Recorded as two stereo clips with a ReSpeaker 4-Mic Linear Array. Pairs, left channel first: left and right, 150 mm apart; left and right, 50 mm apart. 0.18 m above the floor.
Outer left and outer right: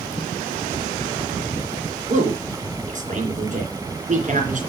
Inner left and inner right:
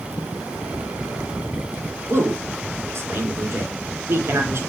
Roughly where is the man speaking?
Right.